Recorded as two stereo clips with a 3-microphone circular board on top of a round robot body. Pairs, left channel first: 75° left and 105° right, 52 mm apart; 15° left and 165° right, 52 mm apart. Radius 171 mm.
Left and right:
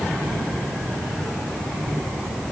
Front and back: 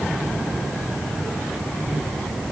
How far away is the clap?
I don't hear a clap.